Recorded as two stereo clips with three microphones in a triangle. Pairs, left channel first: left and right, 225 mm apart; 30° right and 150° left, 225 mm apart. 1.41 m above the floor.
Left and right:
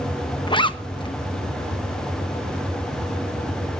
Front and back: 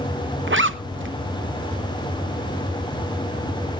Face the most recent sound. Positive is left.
turn(degrees=155)